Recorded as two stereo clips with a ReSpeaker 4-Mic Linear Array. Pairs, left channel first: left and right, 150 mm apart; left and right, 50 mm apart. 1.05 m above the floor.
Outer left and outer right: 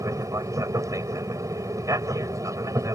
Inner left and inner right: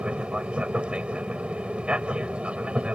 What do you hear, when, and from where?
0.0 s an aircraft: 20° right (ahead or behind)